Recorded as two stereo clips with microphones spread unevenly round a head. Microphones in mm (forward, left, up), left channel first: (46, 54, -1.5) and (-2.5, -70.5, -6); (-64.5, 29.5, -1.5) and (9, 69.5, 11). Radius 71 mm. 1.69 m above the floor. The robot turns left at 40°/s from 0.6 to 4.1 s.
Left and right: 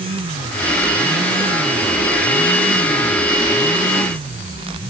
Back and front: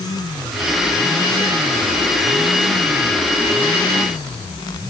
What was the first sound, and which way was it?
Only background noise.